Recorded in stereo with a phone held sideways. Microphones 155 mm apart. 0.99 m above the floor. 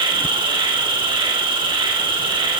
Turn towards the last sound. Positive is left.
turn(degrees=-30)  # may be behind; listen again after turning